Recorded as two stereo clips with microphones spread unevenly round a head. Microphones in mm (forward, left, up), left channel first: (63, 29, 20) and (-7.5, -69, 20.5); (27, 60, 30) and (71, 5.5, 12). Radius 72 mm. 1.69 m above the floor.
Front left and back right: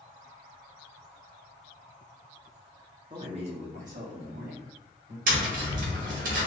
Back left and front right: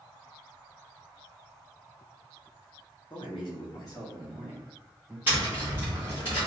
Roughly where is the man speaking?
Behind.